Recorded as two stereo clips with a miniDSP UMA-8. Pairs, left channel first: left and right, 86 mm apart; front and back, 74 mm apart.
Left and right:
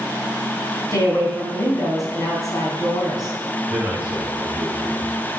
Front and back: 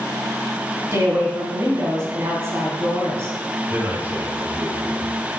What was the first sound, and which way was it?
A woman speaking, 130° left.